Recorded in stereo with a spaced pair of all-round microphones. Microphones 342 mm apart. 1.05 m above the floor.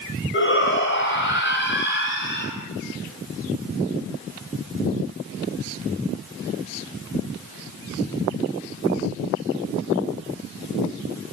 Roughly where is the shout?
Left.